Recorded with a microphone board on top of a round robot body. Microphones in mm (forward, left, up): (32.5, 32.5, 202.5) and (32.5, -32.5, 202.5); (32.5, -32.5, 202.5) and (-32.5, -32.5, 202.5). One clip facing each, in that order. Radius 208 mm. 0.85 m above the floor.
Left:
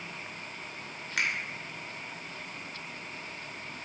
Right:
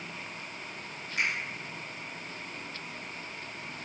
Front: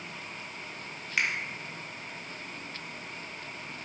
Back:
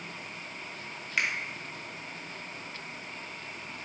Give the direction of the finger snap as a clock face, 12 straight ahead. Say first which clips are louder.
Even, even; 9 o'clock.